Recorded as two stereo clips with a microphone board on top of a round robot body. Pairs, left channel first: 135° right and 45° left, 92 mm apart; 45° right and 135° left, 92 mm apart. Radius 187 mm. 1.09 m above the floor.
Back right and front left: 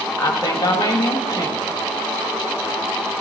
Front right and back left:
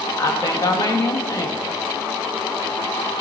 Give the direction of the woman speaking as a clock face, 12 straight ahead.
3 o'clock.